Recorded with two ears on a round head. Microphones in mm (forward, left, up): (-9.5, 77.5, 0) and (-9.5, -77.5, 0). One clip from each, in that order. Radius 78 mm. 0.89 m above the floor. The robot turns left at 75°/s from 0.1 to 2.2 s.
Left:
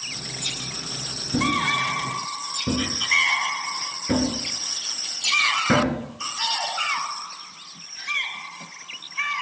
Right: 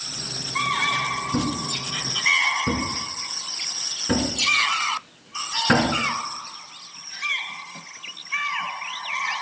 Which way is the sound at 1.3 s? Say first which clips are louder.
Left 5 dB; 10° left (ahead or behind).